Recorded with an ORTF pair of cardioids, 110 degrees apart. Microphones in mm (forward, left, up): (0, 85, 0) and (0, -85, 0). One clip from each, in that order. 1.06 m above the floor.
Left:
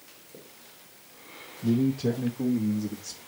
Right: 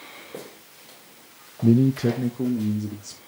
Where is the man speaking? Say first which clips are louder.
Right 6 dB; 70° right, 0.6 m; by 3.2 s 15° right, 2 m.